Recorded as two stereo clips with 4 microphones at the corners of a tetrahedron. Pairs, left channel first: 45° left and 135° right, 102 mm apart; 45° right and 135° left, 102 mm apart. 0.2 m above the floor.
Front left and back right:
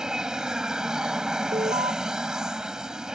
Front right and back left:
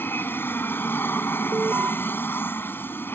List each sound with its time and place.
0.0 s an aircraft: 65° right
1.5 s an alarm: 155° right